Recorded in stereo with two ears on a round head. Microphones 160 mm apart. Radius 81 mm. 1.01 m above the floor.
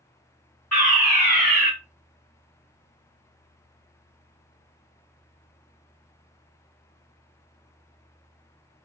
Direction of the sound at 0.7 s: 5° left (ahead or behind).